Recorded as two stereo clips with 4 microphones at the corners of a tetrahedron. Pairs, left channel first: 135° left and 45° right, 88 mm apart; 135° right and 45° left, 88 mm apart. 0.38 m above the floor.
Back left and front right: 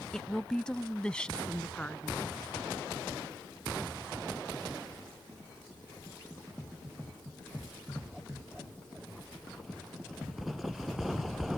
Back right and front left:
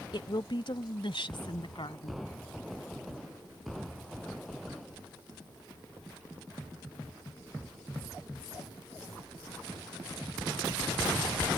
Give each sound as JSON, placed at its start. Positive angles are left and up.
{"t": 0.1, "sound": "a woman speaking", "azimuth_deg": -140}